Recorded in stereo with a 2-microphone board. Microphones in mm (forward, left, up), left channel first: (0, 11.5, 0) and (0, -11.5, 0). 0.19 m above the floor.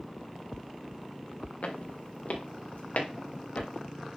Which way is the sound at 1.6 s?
75° left (ahead or behind).